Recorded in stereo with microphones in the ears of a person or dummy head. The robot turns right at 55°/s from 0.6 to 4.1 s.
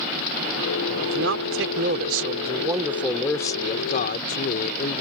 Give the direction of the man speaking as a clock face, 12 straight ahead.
4 o'clock.